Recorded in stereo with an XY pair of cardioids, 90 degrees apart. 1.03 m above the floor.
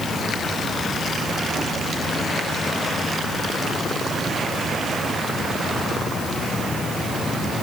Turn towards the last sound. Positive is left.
No sound to turn to.